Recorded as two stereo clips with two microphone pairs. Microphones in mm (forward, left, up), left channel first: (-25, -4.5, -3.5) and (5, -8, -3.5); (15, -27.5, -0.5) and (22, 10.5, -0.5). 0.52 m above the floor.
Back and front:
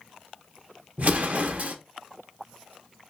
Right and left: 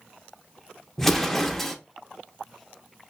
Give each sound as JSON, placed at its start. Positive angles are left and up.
{"t": 1.0, "sound": "an explosion", "azimuth_deg": -25, "distance_m": 0.6}